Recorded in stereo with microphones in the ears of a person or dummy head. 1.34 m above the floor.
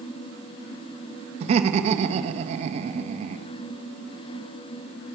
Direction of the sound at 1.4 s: 40° right (ahead or behind).